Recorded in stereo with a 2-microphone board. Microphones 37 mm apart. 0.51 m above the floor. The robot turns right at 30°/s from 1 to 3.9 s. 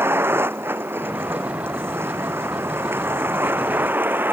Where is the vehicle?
75° right (ahead or behind); by 4.3 s 65° right (ahead or behind).